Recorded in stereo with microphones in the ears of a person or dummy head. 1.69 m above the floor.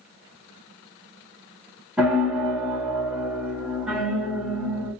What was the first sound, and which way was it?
A piano, 5° right (ahead or behind).